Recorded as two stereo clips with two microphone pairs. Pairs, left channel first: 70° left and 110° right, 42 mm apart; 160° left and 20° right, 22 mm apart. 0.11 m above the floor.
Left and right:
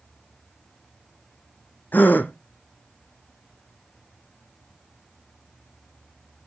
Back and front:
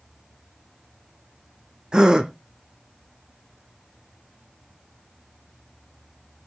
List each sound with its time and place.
1.9 s a gasp: 25° left, 1.2 m